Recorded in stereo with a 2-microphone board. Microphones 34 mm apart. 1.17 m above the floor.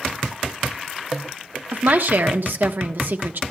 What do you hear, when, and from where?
1.7 s a woman speaking: 70° right (ahead or behind), 1.1 m